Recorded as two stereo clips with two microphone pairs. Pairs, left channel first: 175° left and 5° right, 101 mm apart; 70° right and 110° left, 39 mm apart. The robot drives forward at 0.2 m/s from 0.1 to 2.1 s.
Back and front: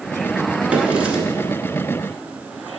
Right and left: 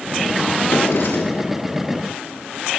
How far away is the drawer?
About 1.8 m.